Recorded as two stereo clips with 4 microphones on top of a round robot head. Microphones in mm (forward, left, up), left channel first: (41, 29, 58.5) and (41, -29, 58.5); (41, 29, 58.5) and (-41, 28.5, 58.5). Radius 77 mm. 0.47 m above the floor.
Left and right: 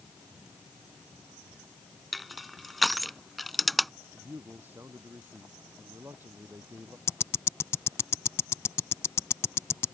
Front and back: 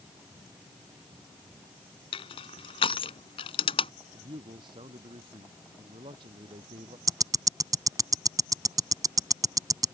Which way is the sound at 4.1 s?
150° right.